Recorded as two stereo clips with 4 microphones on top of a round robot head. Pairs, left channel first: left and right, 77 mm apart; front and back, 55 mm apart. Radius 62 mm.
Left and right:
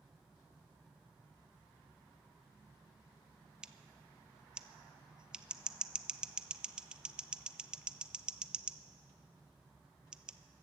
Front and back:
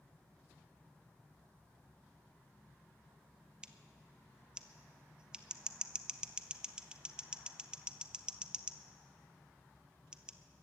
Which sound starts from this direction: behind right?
Scissors, at 3.6 s.